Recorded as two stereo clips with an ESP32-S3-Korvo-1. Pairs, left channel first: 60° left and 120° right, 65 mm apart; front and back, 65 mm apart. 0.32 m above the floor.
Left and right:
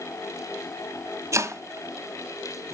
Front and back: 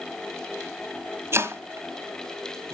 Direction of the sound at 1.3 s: 140° right.